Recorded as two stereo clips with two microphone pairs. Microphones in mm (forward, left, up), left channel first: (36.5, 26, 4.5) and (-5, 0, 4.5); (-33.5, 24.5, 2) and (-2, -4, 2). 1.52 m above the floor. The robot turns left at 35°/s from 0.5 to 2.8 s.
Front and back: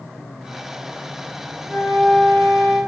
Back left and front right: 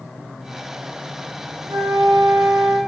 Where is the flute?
55° right, 0.6 m; by 2.8 s 95° right, 0.6 m.